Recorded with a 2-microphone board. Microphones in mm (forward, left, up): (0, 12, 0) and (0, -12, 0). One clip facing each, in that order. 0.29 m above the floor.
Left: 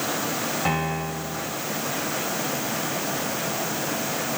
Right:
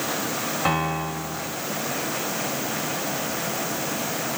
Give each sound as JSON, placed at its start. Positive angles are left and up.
{"t": 0.7, "sound": "a piano", "side_deg": -10, "distance_m": 1.4}